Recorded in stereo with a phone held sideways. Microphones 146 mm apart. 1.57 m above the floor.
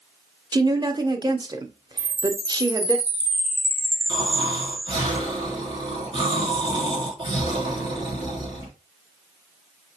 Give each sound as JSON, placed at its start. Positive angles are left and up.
{"t": 0.5, "sound": "a woman speaking", "side_deg": -30, "distance_m": 0.8}
{"t": 2.0, "sound": "a chime", "side_deg": -45, "distance_m": 0.9}
{"t": 4.1, "sound": "snoring", "side_deg": -35, "distance_m": 4.0}